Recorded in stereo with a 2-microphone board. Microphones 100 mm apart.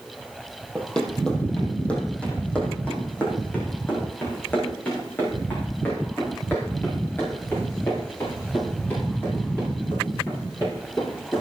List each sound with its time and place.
0.8 s running footsteps: 10° left (ahead or behind), 3 m; by 11.4 s 20° left (ahead or behind), 15 m